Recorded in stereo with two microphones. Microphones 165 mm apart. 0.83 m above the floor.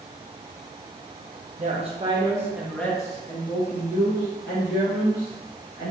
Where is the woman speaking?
45° right (ahead or behind), 0.8 m; by 5.9 s 70° left (ahead or behind), 1.9 m.